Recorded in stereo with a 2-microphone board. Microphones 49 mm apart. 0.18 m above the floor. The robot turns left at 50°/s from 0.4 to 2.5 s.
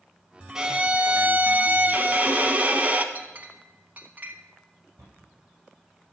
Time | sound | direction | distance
0.6 | a violin | 25° right | 0.7 m
3.1 | a clink | 35° right (ahead or behind) | 0.8 m
5.0 | a cupboard door | 65° right (ahead or behind) | 5 m